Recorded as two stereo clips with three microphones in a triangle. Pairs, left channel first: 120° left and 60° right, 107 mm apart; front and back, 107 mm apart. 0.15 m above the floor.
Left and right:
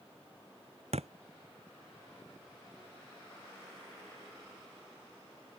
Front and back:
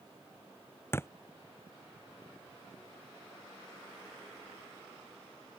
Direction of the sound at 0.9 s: 65° right.